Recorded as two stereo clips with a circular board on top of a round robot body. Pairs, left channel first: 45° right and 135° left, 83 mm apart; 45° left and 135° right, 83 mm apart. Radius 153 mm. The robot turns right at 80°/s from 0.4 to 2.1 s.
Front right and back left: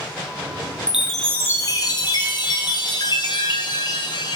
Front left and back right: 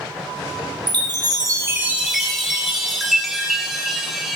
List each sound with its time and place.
0.9 s a chime: 145° right, 0.8 m; by 4.4 s 50° right, 0.8 m